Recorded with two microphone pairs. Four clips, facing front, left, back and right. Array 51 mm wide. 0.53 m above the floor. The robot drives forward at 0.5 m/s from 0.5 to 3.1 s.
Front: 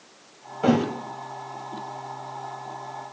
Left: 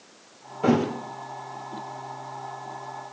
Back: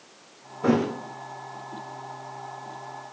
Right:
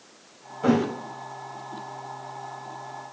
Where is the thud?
15° left, 2.5 m.